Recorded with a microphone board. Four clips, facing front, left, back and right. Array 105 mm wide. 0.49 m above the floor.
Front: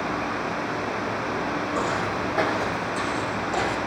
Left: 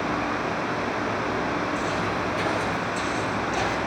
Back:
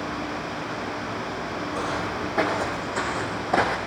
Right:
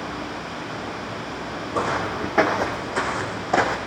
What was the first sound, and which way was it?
Footsteps, 75° right.